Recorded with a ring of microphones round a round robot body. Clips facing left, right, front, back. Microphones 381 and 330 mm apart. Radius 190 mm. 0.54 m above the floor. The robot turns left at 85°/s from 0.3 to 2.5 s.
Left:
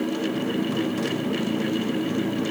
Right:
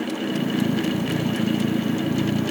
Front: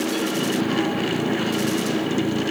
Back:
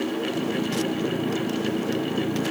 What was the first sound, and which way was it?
Only background noise.